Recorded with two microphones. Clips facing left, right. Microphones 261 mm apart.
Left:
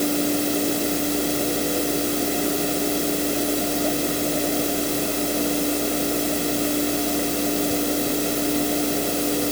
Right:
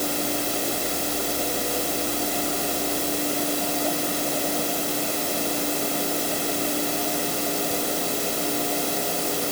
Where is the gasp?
I don't hear a gasp.